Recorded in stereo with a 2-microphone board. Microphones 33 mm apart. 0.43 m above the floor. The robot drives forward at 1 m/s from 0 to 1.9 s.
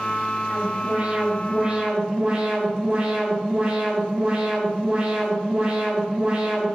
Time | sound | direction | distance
0.5 | an alarm | 50° right (ahead or behind) | 2.5 m